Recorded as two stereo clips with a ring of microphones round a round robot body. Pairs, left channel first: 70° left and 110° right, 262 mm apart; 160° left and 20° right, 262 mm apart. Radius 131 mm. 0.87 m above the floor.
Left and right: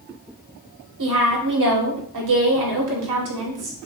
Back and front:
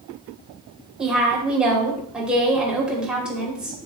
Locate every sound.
1.0 s a woman speaking: 110° right, 2.5 m